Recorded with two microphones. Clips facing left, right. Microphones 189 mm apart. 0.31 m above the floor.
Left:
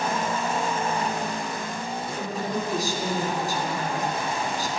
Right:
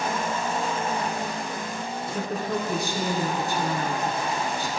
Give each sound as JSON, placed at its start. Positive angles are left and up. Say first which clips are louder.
{"t": 2.1, "sound": "a woman speaking", "louder": "right 2 dB", "side_deg": -65, "distance_m": 3.0}